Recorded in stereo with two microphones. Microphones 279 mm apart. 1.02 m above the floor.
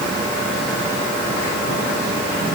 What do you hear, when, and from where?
Only background noise.